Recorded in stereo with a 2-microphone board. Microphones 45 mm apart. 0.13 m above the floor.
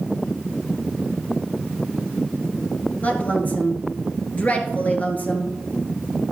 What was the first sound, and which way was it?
A woman speaking, 35° left (ahead or behind).